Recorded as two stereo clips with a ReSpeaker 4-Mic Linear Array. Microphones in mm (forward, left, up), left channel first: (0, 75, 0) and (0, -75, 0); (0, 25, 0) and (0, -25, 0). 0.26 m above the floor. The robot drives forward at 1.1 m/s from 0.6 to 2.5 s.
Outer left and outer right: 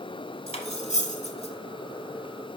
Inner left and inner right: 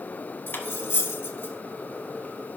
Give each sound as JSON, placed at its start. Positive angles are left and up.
{"t": 0.5, "sound": "cutlery clinking", "side_deg": 45, "distance_m": 1.0}